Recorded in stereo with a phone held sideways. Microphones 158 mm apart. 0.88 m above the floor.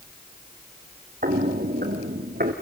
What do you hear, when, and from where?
1.2 s footsteps: 60° right (ahead or behind), 2 m; by 2.5 s 65° right (ahead or behind), 3 m